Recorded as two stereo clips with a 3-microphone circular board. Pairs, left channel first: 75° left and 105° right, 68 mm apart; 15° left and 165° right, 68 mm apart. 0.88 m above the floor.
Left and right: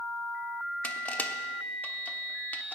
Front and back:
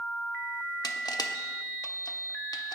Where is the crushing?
10° left, 0.9 m.